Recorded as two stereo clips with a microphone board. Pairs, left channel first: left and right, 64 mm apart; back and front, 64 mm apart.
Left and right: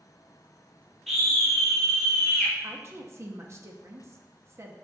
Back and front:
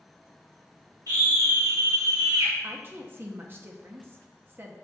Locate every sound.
1.1 s a scream: 5° left, 1.9 m
2.6 s a woman speaking: 50° right, 1.1 m